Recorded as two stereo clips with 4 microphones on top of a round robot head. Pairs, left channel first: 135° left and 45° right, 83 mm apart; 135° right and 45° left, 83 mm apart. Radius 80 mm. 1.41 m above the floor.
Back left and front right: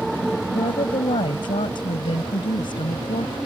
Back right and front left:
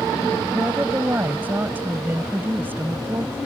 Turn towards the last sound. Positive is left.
turn(degrees=110)